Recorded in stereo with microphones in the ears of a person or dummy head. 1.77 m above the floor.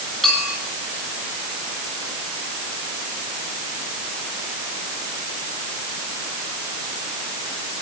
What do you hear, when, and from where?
0.2 s a clink: centre (ahead or behind), 6 m